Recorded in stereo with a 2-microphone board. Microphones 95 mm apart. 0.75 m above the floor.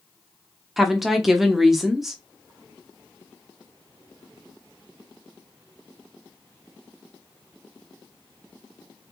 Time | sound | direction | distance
0.8 | a woman speaking | 5° right (ahead or behind) | 0.6 m